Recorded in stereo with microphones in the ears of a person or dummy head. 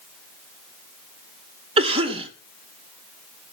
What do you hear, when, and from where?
1.8 s a cough: 35° right (ahead or behind), 2 m